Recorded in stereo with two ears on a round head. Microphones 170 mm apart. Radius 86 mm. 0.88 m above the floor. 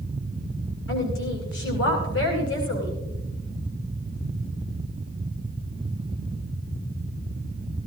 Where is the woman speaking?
70° left (ahead or behind), 10 m.